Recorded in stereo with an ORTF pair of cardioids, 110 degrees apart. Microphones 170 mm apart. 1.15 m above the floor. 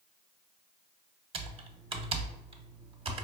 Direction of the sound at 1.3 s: 35° right.